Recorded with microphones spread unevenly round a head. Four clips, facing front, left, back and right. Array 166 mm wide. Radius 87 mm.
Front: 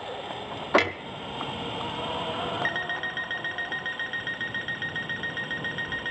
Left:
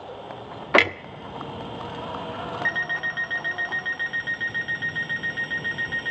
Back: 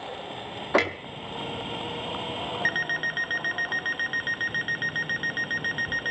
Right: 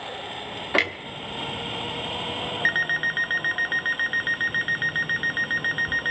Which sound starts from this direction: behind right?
An alarm clock, at 2.6 s.